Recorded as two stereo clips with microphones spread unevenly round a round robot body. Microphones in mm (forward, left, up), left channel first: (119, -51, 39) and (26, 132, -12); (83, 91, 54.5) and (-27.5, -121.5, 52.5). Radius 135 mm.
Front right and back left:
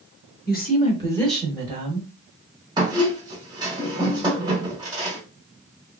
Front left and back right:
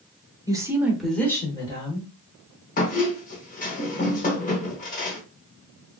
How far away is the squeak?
About 1.0 m.